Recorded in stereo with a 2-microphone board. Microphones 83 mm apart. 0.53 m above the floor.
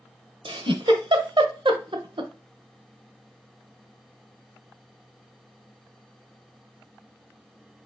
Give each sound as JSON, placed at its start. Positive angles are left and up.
{"t": 0.5, "sound": "a giggle", "side_deg": -75, "distance_m": 0.9}